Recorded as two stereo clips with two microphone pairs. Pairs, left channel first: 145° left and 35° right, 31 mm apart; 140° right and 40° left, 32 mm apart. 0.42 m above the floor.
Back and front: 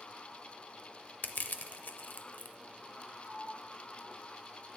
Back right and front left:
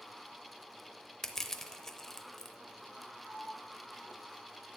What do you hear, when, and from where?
1.2 s crushing: 145° left, 0.6 m
3.2 s a sliding door: 95° right, 1.9 m